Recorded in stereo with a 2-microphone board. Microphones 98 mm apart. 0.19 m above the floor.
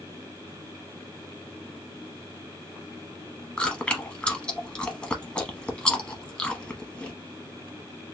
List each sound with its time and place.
3.6 s chewing: 10° left (ahead or behind), 0.8 m